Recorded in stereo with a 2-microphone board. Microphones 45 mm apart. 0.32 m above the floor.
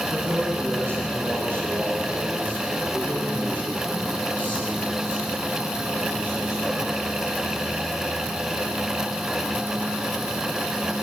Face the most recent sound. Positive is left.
turn(degrees=-30)  # may be behind; listen again after turning